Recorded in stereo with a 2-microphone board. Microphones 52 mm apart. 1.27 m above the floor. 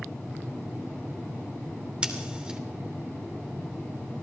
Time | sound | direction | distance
2.0 | scissors | 20° right (ahead or behind) | 2.5 m